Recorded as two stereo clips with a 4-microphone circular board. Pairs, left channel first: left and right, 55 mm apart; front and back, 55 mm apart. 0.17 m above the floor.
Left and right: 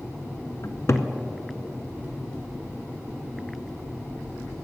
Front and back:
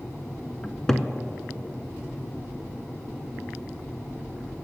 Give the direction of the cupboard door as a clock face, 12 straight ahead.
9 o'clock.